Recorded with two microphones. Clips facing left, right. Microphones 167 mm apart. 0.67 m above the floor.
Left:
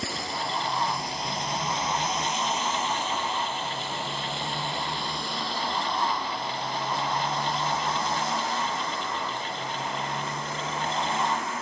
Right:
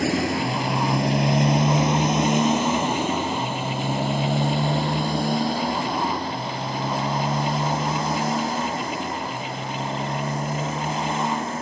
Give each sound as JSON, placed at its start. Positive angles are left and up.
{"t": 0.0, "sound": "a motorcycle", "side_deg": -85}